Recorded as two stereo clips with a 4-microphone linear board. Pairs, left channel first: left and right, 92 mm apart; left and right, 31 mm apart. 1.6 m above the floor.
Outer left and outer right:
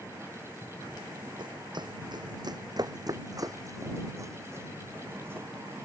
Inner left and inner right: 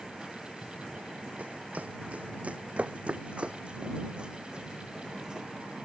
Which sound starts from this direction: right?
Running footsteps, at 1.4 s.